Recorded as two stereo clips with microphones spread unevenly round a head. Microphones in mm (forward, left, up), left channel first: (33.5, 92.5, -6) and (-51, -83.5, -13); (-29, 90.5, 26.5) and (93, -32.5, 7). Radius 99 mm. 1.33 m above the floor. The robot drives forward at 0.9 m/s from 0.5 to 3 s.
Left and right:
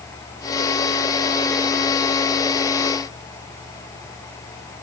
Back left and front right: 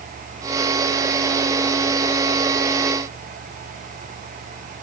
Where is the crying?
I don't hear crying.